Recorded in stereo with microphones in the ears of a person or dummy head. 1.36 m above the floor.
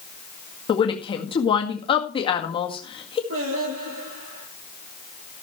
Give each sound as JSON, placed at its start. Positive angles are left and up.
{"t": 0.7, "sound": "a woman speaking", "side_deg": 20, "distance_m": 1.8}
{"t": 3.3, "sound": "singing", "side_deg": -75, "distance_m": 8.5}